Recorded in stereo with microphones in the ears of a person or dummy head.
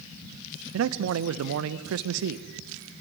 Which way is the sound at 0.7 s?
65° right (ahead or behind).